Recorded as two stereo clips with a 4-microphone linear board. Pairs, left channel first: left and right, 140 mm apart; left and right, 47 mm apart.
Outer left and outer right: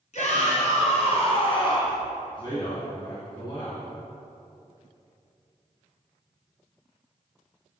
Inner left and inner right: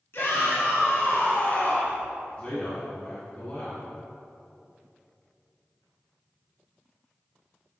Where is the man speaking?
35° left (ahead or behind), 1.8 m.